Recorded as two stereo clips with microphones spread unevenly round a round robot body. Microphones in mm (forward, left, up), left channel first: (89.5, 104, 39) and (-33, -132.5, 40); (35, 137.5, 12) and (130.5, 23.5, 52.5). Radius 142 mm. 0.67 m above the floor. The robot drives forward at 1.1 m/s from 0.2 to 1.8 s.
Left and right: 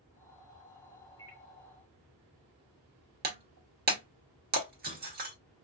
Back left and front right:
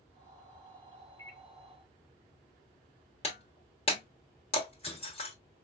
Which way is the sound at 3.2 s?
175° right.